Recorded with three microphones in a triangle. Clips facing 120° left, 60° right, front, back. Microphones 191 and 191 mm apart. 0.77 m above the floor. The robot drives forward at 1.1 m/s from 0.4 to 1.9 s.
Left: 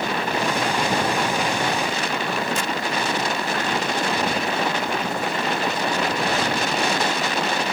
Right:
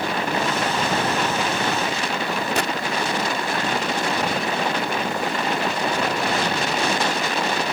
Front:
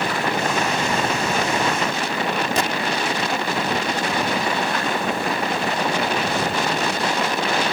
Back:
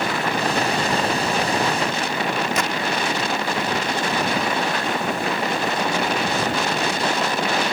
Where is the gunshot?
55° right.